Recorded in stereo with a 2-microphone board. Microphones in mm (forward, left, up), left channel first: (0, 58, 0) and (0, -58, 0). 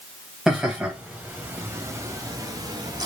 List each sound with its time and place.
0.5 s laughter: 5° right (ahead or behind), 1.6 m; by 3.1 s 35° right (ahead or behind), 1.7 m